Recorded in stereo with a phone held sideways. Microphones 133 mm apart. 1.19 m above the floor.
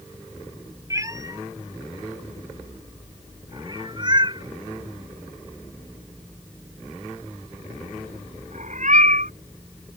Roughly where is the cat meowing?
Right.